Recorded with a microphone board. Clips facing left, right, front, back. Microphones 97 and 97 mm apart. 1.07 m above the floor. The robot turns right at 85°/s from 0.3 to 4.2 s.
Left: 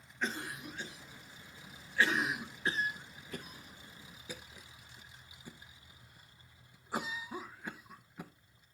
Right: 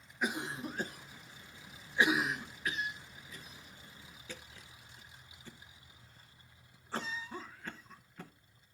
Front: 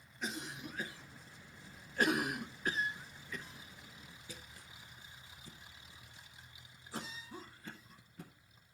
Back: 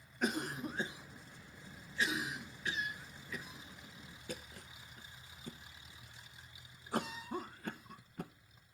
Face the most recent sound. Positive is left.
turn(degrees=165)